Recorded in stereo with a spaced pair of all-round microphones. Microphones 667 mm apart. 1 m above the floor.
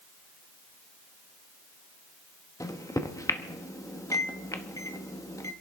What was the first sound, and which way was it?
A microwave, 5° left (ahead or behind).